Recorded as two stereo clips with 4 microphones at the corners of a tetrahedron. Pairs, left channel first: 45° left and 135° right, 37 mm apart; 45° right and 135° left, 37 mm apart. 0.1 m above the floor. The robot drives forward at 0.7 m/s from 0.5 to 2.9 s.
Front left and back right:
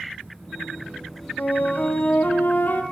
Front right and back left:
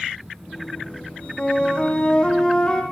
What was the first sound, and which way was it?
A flute, 15° left.